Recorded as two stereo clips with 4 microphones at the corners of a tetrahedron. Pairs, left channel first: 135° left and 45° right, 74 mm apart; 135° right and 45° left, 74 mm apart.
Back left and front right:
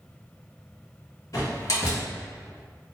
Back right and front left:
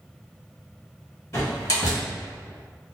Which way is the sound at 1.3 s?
175° left.